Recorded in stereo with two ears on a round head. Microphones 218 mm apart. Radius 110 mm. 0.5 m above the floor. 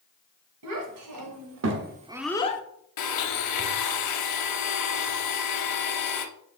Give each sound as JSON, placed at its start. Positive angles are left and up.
{"t": 0.6, "sound": "a child speaking", "side_deg": -75, "distance_m": 2.5}
{"t": 3.0, "sound": "a blender", "side_deg": 85, "distance_m": 1.0}